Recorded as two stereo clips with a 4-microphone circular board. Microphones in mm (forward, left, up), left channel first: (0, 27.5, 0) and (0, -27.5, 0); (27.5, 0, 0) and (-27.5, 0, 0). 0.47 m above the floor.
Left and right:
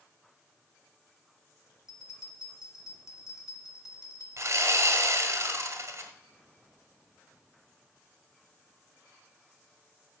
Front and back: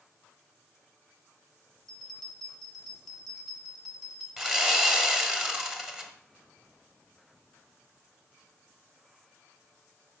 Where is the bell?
85° left, 2 m.